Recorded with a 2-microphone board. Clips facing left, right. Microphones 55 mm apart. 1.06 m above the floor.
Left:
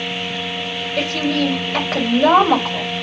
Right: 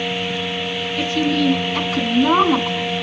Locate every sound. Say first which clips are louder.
1.0 s a woman speaking: even; 85° left, 4.5 m